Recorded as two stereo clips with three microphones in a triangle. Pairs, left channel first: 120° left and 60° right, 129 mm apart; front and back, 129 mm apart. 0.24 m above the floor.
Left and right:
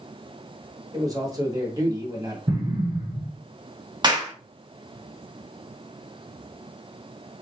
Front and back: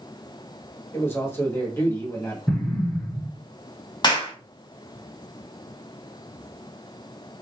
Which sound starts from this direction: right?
An explosion, at 2.5 s.